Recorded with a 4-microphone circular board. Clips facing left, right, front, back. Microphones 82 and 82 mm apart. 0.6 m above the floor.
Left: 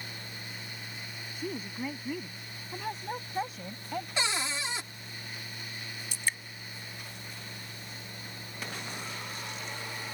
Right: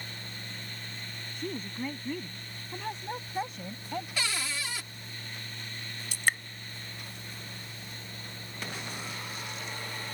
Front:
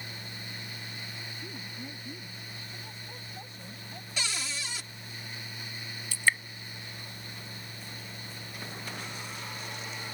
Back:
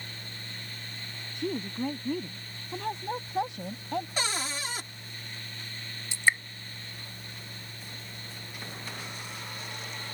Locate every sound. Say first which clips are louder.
1.4 s a woman speaking: even, back 11 dB; 175° left; by 4.1 s straight behind
4.2 s a cupboard door: left 2 dB, back 4 dB; 150° left
6.1 s dripping: right 6 dB, back 2 dB; 115° right